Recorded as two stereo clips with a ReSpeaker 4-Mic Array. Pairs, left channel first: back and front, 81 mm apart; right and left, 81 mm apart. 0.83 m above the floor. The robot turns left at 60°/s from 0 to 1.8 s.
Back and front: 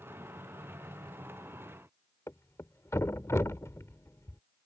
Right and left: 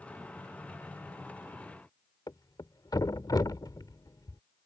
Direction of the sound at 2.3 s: 125° right.